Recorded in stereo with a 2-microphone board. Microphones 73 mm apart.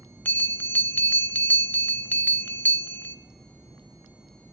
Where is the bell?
25° left (ahead or behind), 1.0 m.